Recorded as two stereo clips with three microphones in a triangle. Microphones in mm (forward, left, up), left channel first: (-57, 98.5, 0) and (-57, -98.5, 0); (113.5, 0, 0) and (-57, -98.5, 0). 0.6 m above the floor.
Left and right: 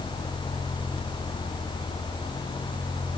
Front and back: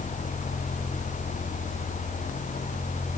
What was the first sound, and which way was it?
Only background noise.